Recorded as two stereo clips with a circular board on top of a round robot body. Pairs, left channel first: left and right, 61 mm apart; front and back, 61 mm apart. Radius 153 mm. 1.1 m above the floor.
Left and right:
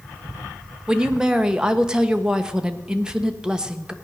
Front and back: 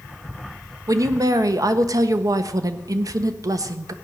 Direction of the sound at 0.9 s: 165° right.